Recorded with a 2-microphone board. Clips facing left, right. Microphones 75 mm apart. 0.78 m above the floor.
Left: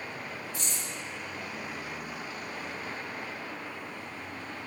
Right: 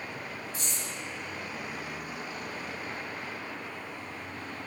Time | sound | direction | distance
0.5 | keys jangling | 40° right (ahead or behind) | 1.7 m